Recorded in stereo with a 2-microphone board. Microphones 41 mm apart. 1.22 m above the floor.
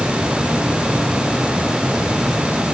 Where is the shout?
I don't hear a shout.